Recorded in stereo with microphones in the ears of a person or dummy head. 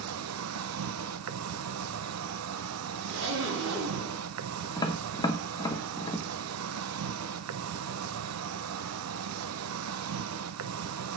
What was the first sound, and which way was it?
An insect, 75° right (ahead or behind).